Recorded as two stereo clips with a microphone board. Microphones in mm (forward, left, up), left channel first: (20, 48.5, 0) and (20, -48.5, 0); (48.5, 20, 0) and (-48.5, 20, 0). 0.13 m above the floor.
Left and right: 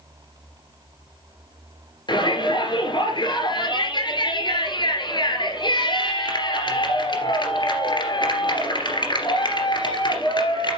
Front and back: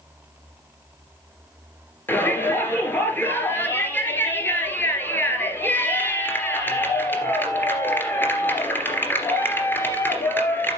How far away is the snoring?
I don't hear snoring.